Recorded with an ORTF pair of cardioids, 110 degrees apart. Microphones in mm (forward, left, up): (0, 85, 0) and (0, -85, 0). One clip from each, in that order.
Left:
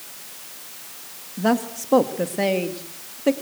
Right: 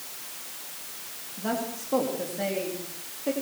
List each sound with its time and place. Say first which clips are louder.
1.4 s a woman speaking: left 8 dB; 60° left, 3 m